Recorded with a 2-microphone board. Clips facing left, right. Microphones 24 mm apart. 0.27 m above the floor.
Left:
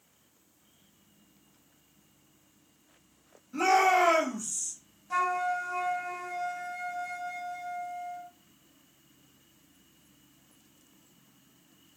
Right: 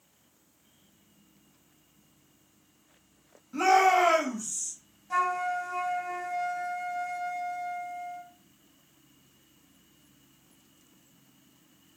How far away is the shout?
About 1.4 m.